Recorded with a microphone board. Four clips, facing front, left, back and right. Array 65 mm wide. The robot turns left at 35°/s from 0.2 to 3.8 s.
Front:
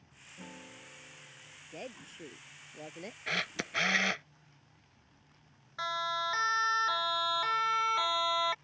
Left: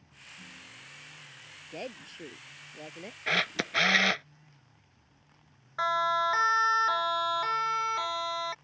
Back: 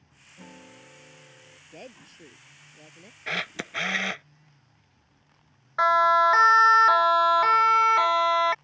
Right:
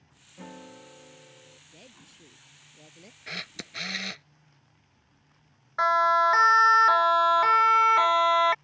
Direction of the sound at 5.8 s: 160° right.